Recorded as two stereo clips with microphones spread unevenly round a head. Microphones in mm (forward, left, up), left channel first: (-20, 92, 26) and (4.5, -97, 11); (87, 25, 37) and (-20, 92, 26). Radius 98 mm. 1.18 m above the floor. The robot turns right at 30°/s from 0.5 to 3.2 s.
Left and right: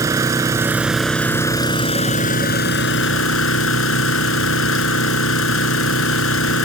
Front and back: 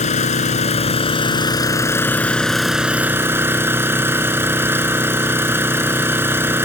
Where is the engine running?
5° right; by 6.7 s 75° left.